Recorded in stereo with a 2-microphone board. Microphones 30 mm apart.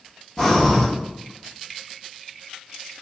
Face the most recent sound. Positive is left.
turn(degrees=15)  # may be behind; listen again after turning